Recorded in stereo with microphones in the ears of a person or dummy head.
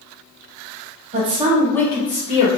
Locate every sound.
1.1 s a woman speaking: 40° right (ahead or behind), 1.1 m; by 2.5 s 40° left (ahead or behind), 1.7 m